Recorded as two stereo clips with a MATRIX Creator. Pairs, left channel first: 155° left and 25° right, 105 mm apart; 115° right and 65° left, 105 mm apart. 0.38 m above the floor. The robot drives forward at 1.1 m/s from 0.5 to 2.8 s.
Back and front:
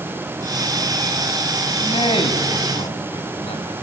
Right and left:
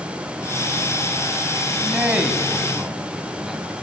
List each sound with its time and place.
1.8 s a man speaking: 145° left, 3 m; by 3.7 s 155° left, 3.5 m